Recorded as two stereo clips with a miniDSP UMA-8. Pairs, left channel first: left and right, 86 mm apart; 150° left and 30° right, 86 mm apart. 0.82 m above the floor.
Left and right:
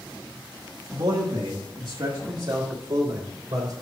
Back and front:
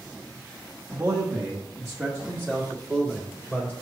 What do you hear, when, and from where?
0.9 s a man speaking: 90° right, 1.2 m; by 3.7 s 135° right, 3 m